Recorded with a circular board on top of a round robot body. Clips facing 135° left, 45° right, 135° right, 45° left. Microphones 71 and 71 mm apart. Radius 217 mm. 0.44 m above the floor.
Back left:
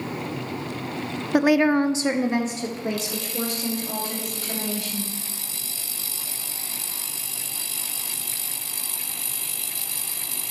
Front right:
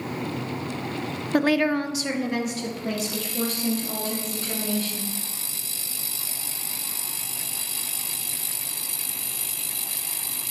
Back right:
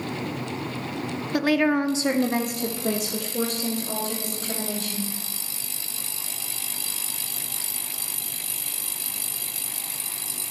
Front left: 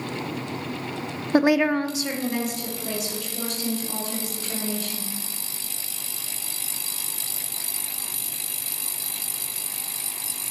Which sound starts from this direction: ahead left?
A woman speaking, at 1.3 s.